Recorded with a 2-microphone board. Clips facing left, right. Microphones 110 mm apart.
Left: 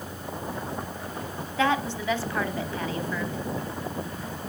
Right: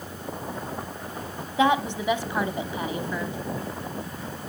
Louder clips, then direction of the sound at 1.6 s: Right 3 dB; 15° right (ahead or behind).